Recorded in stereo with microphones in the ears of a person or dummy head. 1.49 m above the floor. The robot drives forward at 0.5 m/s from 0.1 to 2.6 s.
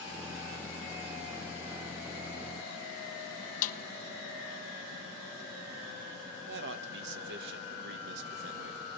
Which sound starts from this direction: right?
A man speaking, at 6.5 s.